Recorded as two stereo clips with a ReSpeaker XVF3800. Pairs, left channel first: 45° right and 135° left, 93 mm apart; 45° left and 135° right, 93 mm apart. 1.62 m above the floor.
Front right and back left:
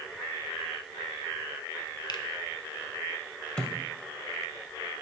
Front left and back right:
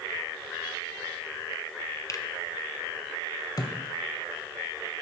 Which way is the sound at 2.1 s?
5° right.